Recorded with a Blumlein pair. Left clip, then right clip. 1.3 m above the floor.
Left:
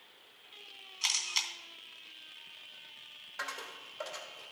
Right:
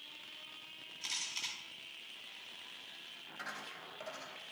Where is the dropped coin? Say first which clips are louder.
Left 5 dB; 45° left, 2.5 m.